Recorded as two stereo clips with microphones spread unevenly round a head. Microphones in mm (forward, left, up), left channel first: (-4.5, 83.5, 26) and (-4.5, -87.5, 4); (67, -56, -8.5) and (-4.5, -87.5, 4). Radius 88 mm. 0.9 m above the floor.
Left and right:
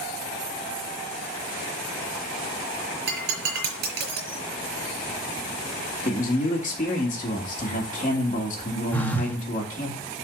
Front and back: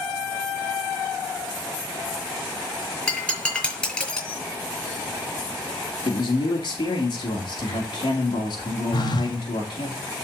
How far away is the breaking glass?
About 5.5 m.